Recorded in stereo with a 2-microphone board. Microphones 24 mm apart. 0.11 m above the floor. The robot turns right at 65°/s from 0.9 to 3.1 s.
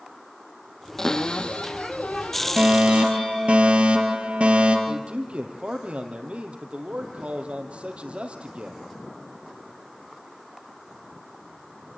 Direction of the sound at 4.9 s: 55° right (ahead or behind).